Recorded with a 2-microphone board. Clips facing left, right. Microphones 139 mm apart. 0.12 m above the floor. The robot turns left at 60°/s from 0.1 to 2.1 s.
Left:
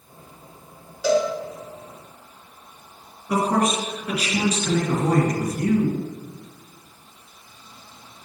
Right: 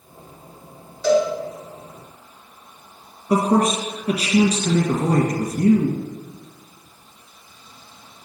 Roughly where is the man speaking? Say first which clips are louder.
Right 3 dB; right.